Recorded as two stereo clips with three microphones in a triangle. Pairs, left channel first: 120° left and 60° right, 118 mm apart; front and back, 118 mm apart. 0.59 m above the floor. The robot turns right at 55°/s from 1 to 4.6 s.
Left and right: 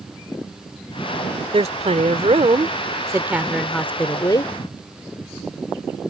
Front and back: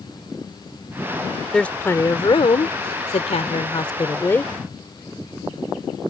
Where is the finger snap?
I don't hear a finger snap.